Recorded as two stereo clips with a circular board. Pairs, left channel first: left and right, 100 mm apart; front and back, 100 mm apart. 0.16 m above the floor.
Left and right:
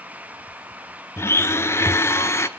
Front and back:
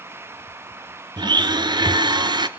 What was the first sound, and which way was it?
A blender, 150° left.